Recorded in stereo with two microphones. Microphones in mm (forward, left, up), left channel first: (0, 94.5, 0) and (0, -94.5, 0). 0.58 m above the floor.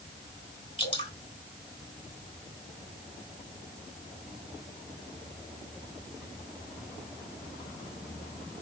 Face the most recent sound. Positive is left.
turn(degrees=30)  # may be behind; listen again after turning